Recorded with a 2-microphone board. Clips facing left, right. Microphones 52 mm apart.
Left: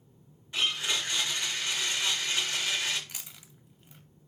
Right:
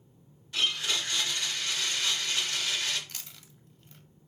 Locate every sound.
0.5 s a blender: 25° left (ahead or behind), 0.9 m
3.1 s chewing: 15° left (ahead or behind), 0.5 m